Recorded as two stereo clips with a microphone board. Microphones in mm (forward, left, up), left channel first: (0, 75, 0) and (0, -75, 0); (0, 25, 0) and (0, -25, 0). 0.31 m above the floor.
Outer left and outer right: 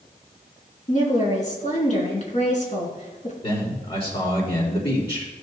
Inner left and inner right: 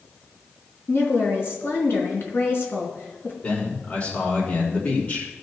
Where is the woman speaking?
55° left (ahead or behind), 3 m.